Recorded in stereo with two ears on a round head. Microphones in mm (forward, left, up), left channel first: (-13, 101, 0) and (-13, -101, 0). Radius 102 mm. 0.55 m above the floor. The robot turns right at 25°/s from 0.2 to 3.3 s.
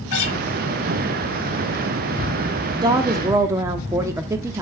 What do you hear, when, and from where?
0.1 s a guitar: 80° left, 5 m; by 0.3 s 75° left (ahead or behind), 5 m
2.7 s a woman speaking: 20° right (ahead or behind), 0.7 m; by 4.6 s 15° right (ahead or behind), 0.7 m